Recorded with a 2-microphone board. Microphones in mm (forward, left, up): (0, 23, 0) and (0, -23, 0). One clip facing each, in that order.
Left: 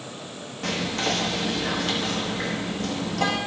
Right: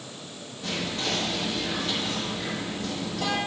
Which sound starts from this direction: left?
Whispering, at 0.6 s.